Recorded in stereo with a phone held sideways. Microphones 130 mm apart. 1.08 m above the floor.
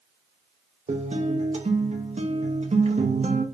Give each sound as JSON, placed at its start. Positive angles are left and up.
{"t": 0.9, "sound": "a guitar", "side_deg": -60, "distance_m": 0.5}